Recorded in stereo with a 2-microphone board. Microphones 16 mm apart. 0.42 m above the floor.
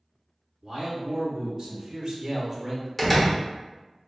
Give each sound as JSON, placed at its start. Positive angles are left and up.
{"t": 0.6, "sound": "a man speaking", "side_deg": -50, "distance_m": 1.9}
{"t": 3.0, "sound": "a door slam", "side_deg": 5, "distance_m": 0.8}